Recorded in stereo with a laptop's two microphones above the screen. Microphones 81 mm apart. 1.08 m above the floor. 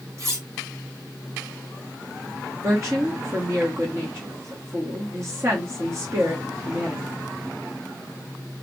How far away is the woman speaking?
About 1.0 m.